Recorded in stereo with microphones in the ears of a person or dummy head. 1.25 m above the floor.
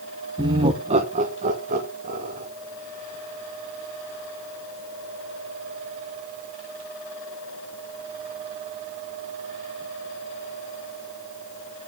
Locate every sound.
0.4 s laughter: 15° right (ahead or behind), 0.7 m; by 2.5 s 40° right (ahead or behind), 2.5 m